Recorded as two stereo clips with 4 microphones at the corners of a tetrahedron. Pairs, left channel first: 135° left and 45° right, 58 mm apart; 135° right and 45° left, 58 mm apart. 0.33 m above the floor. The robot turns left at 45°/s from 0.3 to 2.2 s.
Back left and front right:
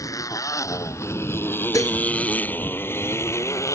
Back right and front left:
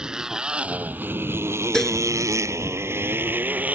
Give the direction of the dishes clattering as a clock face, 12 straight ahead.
7 o'clock.